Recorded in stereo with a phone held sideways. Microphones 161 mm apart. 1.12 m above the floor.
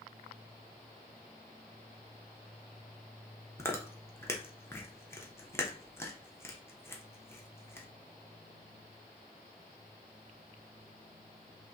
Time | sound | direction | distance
3.6 | chewing | 15° left (ahead or behind) | 0.7 m